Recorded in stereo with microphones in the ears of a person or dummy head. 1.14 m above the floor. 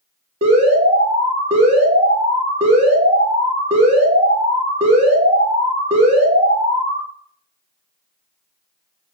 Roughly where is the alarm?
Right.